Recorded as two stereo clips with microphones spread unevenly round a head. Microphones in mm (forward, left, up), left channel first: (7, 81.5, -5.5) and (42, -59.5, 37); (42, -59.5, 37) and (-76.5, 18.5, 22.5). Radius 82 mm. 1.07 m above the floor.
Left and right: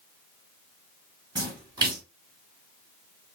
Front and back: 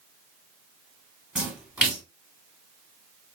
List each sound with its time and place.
1.4 s a splash: 125° right, 1.4 m